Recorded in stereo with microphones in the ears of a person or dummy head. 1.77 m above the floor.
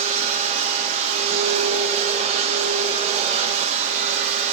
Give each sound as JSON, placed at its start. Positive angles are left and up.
{"t": 0.0, "sound": "a machine running", "side_deg": -40, "distance_m": 0.9}